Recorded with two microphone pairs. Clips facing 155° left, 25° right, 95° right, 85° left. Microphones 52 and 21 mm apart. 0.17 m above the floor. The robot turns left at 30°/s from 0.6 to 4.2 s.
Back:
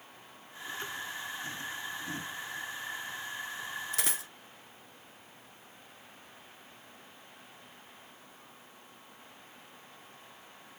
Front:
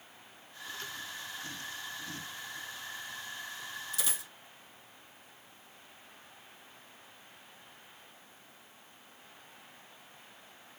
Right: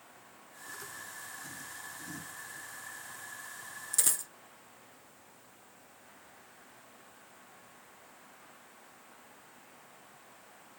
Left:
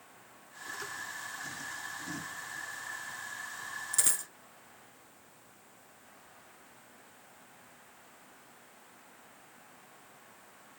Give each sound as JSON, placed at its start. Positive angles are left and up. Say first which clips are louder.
{"t": 3.9, "sound": "a dropped coin", "louder": "back 3 dB, right 1 dB", "azimuth_deg": 165, "distance_m": 0.6}